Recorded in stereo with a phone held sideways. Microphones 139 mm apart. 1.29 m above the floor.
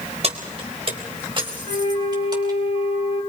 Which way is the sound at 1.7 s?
70° right (ahead or behind).